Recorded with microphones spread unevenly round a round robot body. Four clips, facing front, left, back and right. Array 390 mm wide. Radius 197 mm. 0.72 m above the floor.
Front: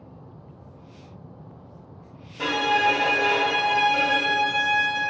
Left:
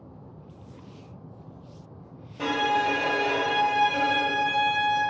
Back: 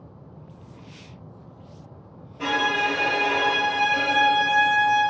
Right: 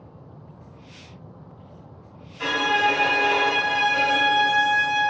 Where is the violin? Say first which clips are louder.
Right 2 dB, front 2 dB; 35° left, 0.9 m.